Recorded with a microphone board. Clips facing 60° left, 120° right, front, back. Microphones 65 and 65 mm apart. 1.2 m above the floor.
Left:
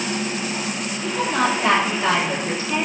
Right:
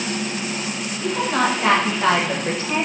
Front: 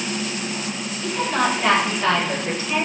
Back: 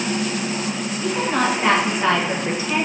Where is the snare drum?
No snare drum in this recording.